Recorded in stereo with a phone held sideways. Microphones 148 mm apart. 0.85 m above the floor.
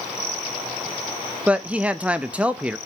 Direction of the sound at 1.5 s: 10° right (ahead or behind).